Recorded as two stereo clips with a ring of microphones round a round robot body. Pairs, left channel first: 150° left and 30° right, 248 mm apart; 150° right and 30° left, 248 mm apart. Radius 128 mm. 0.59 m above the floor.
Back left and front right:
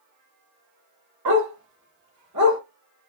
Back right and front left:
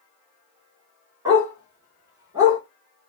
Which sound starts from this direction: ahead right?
A dog barking, at 1.2 s.